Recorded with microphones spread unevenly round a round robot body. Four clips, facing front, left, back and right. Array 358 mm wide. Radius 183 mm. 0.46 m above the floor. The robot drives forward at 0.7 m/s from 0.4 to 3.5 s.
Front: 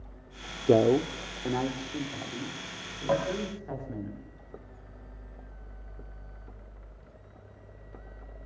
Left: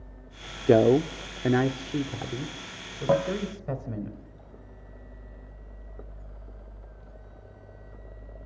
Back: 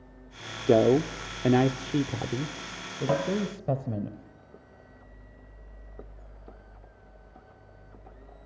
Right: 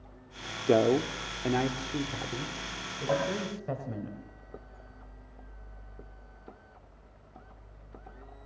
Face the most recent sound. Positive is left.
turn(degrees=115)